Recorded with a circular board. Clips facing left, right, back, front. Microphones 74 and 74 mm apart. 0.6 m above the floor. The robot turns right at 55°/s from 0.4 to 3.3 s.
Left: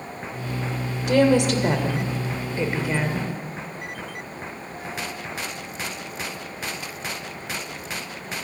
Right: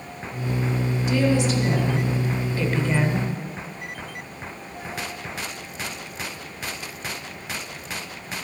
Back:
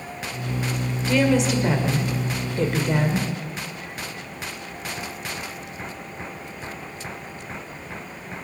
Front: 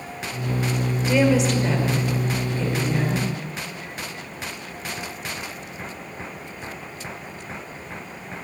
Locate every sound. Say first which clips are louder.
1.1 s a woman speaking: left 5 dB, front 1 dB; 70° left, 2.0 m; by 3.3 s 165° right, 2.0 m